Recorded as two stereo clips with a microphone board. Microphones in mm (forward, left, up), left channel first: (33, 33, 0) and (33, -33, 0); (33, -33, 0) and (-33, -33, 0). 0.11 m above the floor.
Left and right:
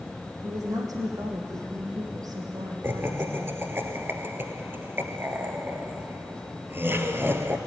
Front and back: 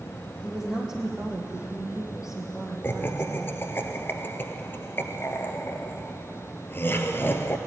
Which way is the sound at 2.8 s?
45° right.